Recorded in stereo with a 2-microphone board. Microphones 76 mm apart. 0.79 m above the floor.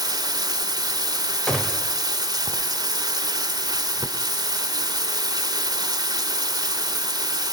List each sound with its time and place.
0.0 s running water: 55° right (ahead or behind), 2 m
1.5 s a gunshot: 10° left (ahead or behind), 2.5 m